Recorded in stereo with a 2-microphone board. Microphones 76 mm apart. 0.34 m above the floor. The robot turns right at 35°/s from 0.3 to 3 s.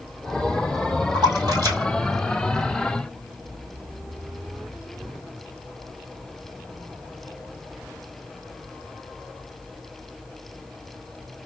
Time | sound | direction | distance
1.1 | a splash | 65° right (ahead or behind) | 1.6 m